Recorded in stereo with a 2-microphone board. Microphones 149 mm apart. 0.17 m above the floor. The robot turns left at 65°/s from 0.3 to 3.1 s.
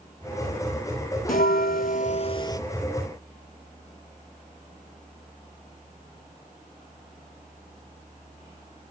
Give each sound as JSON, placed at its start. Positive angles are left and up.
{"t": 1.3, "sound": "a bell", "azimuth_deg": 105, "distance_m": 0.6}